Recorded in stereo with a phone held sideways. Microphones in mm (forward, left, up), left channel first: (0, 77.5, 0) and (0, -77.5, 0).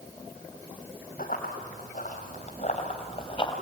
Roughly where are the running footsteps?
Left.